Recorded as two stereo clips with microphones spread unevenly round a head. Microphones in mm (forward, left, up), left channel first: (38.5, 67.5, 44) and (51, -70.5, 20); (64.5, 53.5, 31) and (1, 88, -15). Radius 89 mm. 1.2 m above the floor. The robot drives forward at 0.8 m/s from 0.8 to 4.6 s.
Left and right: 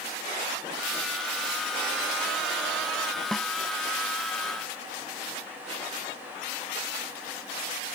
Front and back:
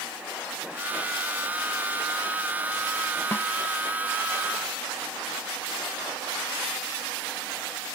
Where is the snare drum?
10° left.